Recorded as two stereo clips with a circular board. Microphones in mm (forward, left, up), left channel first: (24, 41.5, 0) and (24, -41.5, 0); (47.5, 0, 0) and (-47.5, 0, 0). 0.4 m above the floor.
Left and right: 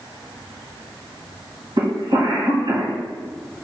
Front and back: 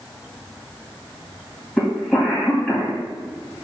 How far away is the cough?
About 3 m.